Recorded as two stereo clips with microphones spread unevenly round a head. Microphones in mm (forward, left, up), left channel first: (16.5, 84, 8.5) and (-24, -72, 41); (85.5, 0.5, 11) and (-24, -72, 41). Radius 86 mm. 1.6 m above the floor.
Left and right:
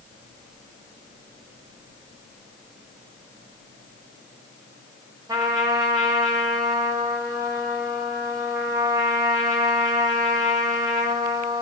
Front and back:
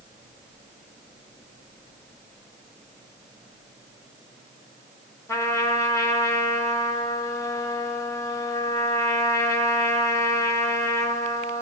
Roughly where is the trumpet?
Ahead right.